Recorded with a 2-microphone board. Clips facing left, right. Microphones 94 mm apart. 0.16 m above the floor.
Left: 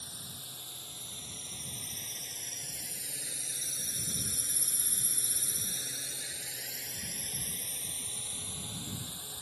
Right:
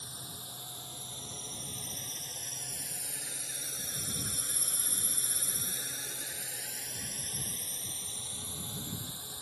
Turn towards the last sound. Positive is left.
turn(degrees=-20)  # may be behind; listen again after turning